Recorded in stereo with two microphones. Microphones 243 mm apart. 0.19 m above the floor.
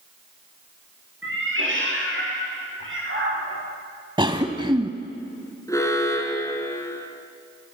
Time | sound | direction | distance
1.2 | a cat meowing | 55° right (ahead or behind) | 9.5 m
4.2 | a cough | 20° right (ahead or behind) | 1.1 m
5.7 | an alarm | 15° left (ahead or behind) | 3 m